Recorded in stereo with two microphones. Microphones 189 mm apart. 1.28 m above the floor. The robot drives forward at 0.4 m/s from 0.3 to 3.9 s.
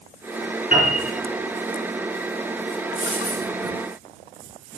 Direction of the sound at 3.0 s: 40° left (ahead or behind).